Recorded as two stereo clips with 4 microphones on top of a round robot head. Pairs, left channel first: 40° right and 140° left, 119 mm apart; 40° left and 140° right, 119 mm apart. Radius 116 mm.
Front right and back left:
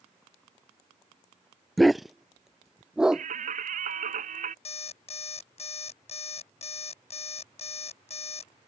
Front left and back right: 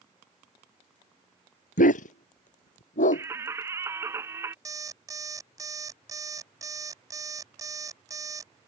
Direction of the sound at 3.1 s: 150° left.